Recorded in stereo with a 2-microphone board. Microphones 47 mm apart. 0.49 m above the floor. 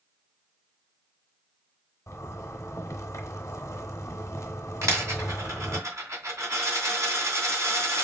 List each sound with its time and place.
2.1 s a zipper: 85° left, 0.8 m
4.8 s a dropped coin: 80° right, 1.9 m